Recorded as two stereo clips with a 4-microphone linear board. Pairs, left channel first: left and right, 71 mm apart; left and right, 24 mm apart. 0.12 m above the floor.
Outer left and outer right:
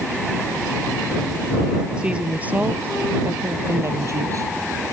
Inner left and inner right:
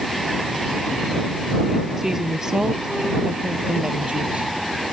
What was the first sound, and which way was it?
A woman speaking, 15° right (ahead or behind).